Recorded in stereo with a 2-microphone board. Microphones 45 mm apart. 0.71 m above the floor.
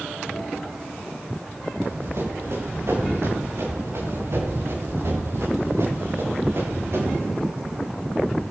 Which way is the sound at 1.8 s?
65° right (ahead or behind).